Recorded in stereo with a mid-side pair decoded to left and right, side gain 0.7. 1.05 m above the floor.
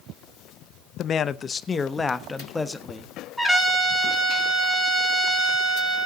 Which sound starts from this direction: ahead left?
A man speaking, at 1.0 s.